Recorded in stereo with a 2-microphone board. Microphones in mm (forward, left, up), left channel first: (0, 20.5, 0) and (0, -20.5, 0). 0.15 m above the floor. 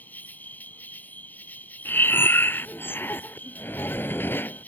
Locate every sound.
0.0 s an insect: 45° left (ahead or behind)
1.9 s breathing: 60° left (ahead or behind)